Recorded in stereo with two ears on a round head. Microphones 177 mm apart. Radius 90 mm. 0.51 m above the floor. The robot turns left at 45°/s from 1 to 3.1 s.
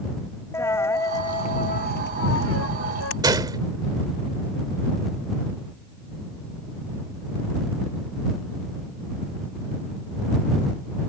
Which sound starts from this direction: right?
A gunshot, at 3.2 s.